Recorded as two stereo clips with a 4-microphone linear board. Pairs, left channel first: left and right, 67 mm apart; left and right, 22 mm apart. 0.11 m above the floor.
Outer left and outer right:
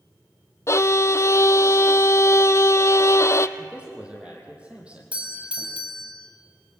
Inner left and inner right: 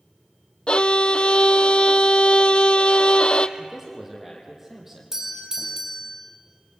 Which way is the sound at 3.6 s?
15° right (ahead or behind).